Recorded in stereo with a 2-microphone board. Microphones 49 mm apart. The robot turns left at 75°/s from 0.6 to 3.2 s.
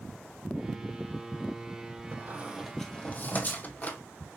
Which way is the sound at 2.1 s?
45° right (ahead or behind).